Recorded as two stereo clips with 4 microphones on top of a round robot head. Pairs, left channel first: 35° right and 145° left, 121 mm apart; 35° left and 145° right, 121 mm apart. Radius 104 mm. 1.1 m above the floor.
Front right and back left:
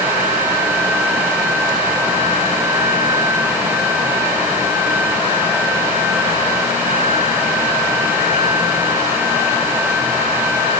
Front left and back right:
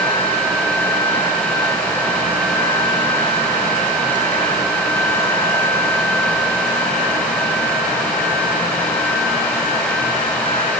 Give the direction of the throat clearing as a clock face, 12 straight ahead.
I don't hear throat clearing.